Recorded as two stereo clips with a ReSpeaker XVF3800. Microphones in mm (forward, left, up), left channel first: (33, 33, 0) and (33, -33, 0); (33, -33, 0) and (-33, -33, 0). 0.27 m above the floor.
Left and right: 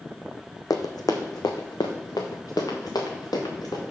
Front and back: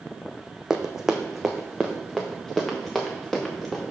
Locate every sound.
0.7 s running footsteps: 100° left, 0.9 m; by 3.8 s 85° left, 2.5 m